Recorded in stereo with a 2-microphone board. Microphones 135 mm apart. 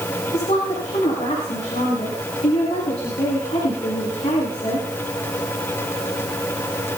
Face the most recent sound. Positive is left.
turn(degrees=55)  # may be behind; listen again after turning